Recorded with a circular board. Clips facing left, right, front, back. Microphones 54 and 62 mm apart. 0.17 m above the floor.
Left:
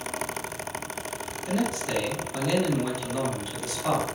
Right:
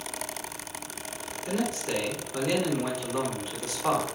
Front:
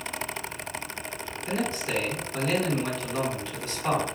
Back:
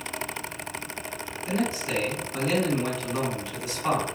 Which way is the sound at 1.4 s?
110° right.